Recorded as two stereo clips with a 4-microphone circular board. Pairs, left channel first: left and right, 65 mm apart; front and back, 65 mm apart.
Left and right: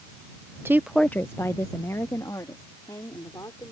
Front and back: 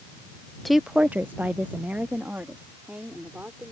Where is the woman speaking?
90° right; by 3.7 s 115° left.